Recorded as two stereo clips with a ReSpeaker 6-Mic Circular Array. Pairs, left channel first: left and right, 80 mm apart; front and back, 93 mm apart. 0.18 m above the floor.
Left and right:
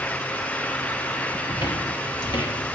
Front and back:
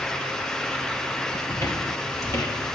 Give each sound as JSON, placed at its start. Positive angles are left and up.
{"t": 1.5, "sound": "footsteps", "azimuth_deg": 60, "distance_m": 2.5}